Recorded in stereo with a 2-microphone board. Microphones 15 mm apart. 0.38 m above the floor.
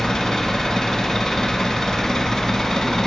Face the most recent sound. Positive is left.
turn(degrees=55)  # may be behind; listen again after turning